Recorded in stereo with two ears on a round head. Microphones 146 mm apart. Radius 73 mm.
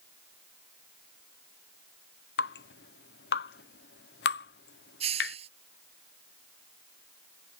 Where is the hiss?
40° right (ahead or behind).